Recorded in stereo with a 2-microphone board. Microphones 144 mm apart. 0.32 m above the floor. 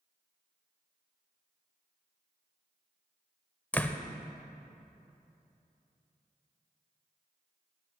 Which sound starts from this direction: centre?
A door slam, at 3.7 s.